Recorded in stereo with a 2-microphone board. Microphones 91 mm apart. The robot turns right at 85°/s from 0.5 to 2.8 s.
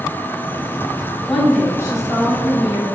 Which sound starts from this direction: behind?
A woman speaking, at 1.3 s.